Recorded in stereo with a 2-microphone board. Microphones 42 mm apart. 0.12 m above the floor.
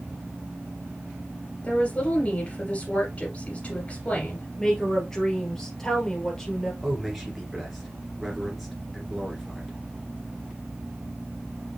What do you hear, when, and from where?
1.6 s a woman speaking: 30° left (ahead or behind), 2.5 m
4.6 s a woman speaking: 15° left (ahead or behind), 1.9 m
6.8 s a man speaking: centre (ahead or behind), 2 m